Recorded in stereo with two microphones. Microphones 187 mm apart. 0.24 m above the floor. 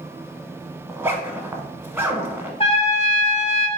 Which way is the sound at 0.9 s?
15° right (ahead or behind).